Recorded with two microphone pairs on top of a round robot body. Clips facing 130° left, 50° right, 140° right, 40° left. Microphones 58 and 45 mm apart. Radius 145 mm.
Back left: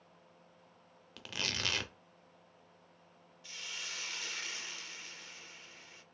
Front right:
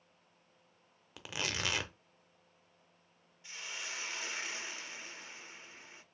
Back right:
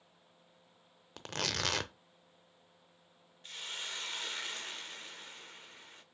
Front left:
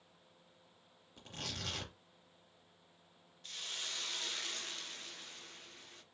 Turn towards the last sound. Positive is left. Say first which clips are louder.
# front right 2 dB, back right 2 dB
turn(degrees=-85)